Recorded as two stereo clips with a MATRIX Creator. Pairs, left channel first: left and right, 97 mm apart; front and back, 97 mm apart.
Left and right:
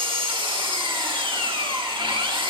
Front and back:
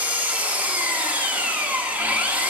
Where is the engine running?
105° right, 1.2 m.